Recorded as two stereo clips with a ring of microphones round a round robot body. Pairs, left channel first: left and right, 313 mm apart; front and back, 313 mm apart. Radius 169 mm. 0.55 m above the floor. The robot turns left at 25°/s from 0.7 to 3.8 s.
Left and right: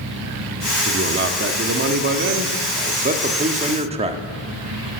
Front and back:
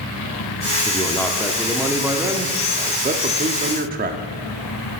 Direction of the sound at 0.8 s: 70° right.